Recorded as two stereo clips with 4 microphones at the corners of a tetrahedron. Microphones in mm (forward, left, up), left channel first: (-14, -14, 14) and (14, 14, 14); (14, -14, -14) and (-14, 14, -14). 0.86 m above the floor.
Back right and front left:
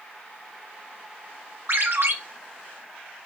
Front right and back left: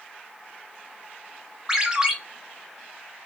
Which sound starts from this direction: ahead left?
A ringtone, at 1.7 s.